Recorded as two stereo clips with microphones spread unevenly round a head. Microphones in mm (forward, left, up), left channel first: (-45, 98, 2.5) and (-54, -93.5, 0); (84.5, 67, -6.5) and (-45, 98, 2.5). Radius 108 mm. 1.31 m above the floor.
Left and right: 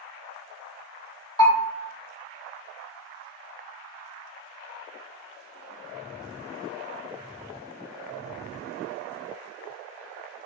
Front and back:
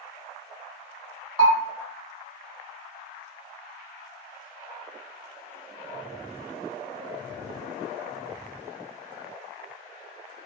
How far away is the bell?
About 1.3 m.